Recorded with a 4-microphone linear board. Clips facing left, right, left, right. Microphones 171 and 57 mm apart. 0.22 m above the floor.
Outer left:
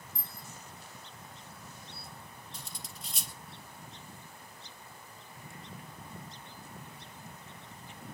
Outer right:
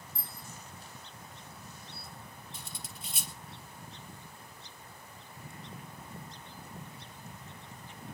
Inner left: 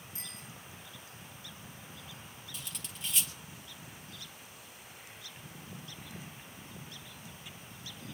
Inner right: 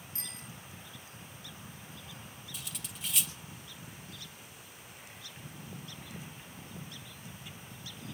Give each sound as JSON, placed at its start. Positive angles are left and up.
{"t": 0.1, "sound": "a bicycle bell", "side_deg": 20, "distance_m": 8.5}
{"t": 2.5, "sound": "cutlery clinking", "side_deg": -5, "distance_m": 3.0}